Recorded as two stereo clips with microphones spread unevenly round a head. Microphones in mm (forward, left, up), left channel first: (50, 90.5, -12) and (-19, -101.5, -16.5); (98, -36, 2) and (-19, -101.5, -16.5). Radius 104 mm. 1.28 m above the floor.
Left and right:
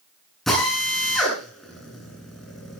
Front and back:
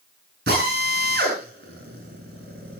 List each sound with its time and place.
0.5 s a drill: 160° left, 9.5 m